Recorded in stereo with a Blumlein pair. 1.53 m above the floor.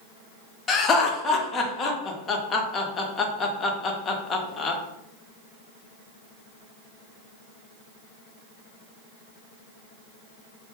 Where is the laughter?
20° left, 0.6 m.